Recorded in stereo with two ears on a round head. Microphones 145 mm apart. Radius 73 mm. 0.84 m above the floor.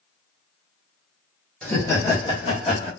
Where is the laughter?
5° left (ahead or behind), 1.0 m; by 2.9 s 40° left (ahead or behind), 1.5 m.